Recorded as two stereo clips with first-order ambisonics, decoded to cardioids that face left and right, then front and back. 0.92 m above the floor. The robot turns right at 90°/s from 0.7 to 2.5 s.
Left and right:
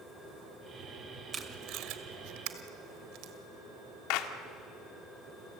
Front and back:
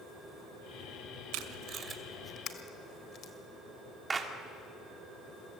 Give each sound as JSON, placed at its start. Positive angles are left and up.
{"t": 1.3, "sound": "tape being pulled", "azimuth_deg": -165, "distance_m": 1.9}
{"t": 4.1, "sound": "a clap", "azimuth_deg": 105, "distance_m": 2.0}